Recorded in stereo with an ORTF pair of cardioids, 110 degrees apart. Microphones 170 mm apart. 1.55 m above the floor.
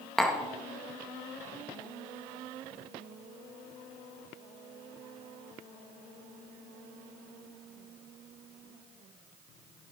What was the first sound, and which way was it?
Tapping, 5° left.